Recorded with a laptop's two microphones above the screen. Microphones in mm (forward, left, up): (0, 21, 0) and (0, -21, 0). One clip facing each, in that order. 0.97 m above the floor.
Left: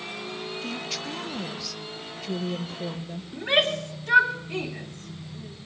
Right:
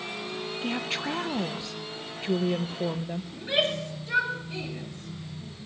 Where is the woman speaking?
30° right (ahead or behind), 0.5 m.